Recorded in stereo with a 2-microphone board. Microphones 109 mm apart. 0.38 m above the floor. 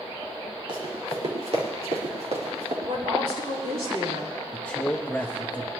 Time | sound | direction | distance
0.7 | running footsteps | 50° right (ahead or behind) | 5.5 m
2.9 | a woman speaking | 65° right (ahead or behind) | 7 m
4.5 | a man speaking | 5° left (ahead or behind) | 1.4 m